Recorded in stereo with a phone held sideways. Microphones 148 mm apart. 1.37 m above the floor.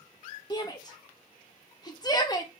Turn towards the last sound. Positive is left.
turn(degrees=25)  # may be behind; listen again after turning